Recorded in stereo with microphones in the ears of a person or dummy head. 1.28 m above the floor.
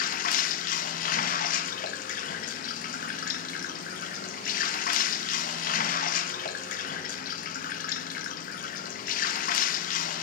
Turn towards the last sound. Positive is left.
turn(degrees=45)  # may be behind; listen again after turning